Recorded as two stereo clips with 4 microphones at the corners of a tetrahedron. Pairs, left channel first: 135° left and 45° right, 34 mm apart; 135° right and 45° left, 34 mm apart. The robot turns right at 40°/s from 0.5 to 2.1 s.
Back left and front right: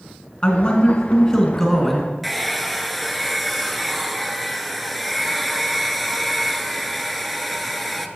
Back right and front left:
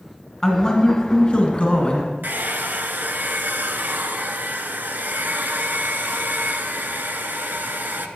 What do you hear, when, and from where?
0.4 s a man speaking: 165° left, 1.4 m; by 2.1 s 130° right, 1.4 m
2.2 s a hair dryer: 45° left, 0.5 m